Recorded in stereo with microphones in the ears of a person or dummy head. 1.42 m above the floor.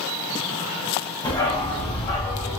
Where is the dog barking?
25° left (ahead or behind), 1.1 m; by 2.6 s 30° left (ahead or behind), 2 m.